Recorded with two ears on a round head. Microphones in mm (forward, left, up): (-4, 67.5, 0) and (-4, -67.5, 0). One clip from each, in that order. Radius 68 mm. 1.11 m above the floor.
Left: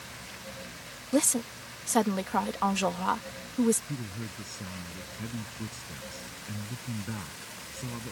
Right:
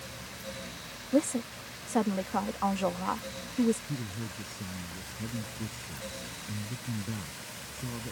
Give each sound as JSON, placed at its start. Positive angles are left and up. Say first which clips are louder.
{"t": 1.1, "sound": "a woman speaking", "louder": "left 1 dB", "side_deg": 70}
{"t": 3.9, "sound": "a man speaking", "louder": "even", "side_deg": 25}